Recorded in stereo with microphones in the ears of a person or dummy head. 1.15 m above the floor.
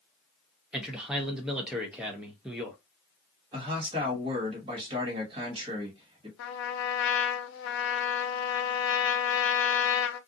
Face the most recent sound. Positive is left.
turn(degrees=65)  # may be behind; listen again after turning